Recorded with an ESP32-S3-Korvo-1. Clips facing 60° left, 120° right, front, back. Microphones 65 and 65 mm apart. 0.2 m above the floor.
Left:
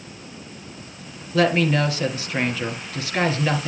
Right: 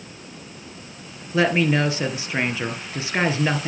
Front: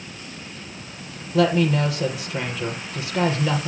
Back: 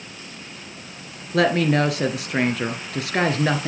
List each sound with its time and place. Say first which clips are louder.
1.3 s a woman speaking: even, back 1 dB; 170° left, 3 m